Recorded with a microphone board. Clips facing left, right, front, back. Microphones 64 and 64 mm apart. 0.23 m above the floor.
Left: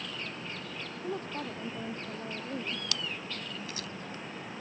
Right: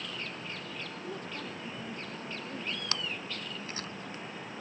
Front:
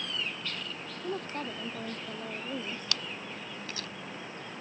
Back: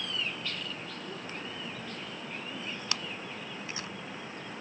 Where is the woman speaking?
35° left.